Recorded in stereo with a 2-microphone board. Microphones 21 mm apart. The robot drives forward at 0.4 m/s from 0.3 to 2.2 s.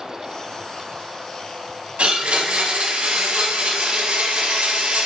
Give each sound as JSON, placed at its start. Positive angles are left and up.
{"t": 2.0, "sound": "a blender", "side_deg": -85, "distance_m": 1.2}